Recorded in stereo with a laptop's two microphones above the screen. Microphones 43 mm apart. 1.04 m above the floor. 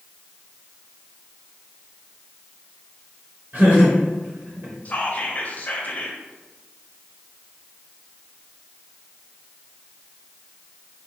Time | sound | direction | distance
3.5 | laughter | 45° right (ahead or behind) | 0.8 m
4.8 | whispering | 35° left (ahead or behind) | 0.6 m